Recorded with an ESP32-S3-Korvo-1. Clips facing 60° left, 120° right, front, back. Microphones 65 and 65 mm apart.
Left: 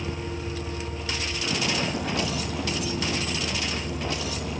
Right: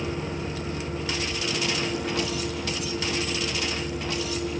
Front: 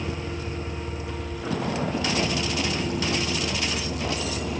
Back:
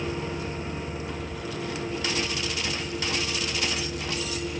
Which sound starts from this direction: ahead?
A vehicle, at 0.0 s.